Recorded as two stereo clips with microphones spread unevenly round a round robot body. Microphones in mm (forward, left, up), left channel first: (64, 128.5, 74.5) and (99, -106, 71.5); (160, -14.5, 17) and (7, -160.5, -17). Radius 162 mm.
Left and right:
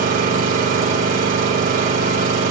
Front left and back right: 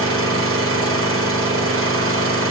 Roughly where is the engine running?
Behind right.